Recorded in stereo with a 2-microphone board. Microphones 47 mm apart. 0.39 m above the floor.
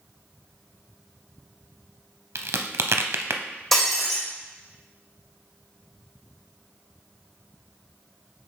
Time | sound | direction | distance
2.4 | a crack | 80° right | 0.5 m
3.7 | breaking glass | 5° left (ahead or behind) | 3 m